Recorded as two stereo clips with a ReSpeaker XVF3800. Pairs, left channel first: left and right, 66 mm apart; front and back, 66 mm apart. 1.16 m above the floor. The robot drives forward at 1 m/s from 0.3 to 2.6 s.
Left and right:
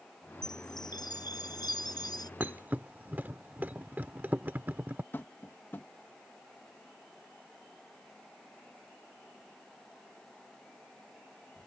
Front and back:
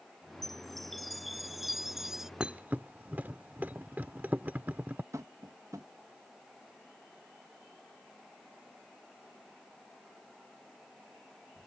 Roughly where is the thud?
Behind right.